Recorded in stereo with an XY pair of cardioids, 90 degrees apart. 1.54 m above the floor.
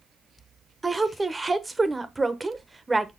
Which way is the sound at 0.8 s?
20° right.